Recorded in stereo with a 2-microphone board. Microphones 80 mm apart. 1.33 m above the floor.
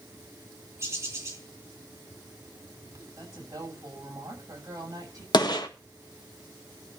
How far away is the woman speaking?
About 9 m.